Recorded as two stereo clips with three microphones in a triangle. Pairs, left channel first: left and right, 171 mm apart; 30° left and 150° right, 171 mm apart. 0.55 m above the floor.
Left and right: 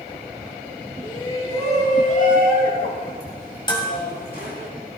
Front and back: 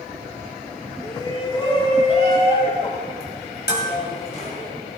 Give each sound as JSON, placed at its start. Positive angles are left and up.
{"t": 1.0, "sound": "a shout", "azimuth_deg": 65, "distance_m": 1.3}
{"t": 3.7, "sound": "dishes clattering", "azimuth_deg": 30, "distance_m": 2.5}